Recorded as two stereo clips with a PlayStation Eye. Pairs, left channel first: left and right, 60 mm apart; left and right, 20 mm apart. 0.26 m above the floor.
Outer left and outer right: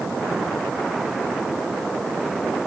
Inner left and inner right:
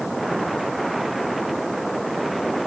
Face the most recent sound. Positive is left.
No sound to turn to.